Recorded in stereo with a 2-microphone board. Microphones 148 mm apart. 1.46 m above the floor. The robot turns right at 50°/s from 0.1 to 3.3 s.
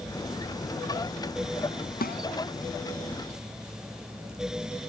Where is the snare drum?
90° left; by 2.2 s 80° left.